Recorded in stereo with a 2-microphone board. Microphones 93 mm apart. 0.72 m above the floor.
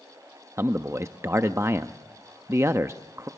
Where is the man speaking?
30° right (ahead or behind), 0.5 m.